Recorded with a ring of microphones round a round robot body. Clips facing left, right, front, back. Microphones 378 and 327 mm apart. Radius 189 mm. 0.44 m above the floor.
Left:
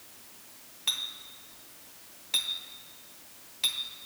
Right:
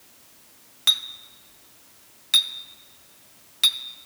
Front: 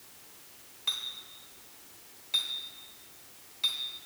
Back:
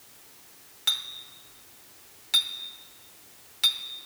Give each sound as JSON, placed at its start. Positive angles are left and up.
{"t": 0.9, "sound": "a clink", "azimuth_deg": -125, "distance_m": 0.5}